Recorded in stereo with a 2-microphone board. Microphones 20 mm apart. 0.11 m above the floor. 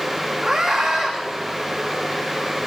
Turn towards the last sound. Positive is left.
turn(degrees=-25)  # may be behind; listen again after turning